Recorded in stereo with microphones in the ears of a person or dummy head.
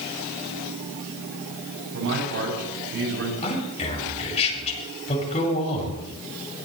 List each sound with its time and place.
1.9 s a man speaking: 65° right (ahead or behind), 8.5 m
3.4 s a man speaking: 35° left (ahead or behind), 7.5 m